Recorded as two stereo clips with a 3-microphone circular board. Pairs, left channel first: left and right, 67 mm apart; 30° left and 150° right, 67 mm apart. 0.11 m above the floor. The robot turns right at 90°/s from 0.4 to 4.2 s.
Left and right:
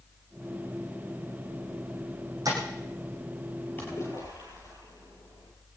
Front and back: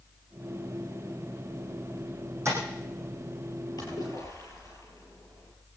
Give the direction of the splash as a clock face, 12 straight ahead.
11 o'clock.